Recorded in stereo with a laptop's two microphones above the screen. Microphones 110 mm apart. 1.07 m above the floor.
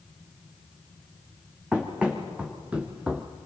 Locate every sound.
1.7 s running footsteps: 10° right (ahead or behind), 3 m